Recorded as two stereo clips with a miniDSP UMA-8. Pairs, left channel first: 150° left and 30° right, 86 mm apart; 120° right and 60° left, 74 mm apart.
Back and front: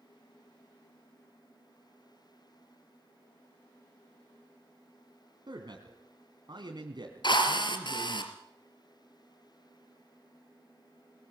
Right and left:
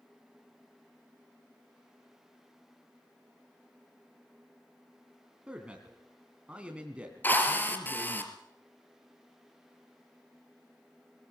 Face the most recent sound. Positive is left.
turn(degrees=175)